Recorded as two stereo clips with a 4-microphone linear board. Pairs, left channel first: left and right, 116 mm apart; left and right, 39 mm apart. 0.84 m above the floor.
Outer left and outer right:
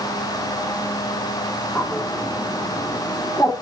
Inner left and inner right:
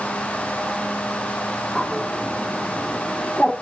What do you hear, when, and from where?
1.8 s a bird: 15° left (ahead or behind), 1.7 m